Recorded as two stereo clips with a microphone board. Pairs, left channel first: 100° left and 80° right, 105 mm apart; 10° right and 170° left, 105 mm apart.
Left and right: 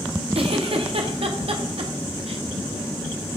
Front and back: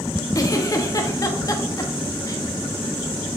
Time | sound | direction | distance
0.3 | a giggle | 65° right | 1.0 m